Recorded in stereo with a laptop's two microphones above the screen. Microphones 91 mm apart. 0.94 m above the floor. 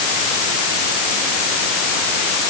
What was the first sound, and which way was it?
Only background noise.